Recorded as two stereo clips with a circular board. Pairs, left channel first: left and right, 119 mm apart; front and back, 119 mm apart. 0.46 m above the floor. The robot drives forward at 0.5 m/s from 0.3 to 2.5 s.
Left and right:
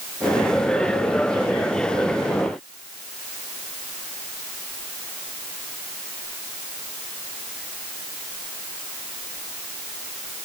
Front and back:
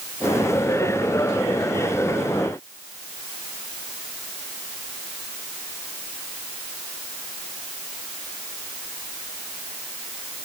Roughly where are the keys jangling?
I don't hear keys jangling.